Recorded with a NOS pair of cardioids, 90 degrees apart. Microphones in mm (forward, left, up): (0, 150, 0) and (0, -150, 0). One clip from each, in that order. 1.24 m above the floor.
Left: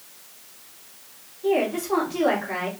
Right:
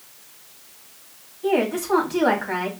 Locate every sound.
1.4 s a woman speaking: 50° right, 3 m